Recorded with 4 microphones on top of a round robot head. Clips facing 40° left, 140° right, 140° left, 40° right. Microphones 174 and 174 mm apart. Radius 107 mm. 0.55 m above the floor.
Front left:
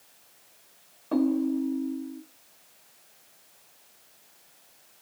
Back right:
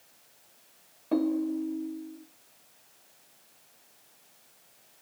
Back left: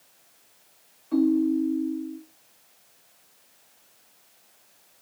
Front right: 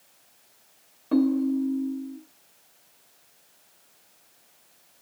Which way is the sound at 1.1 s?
60° right.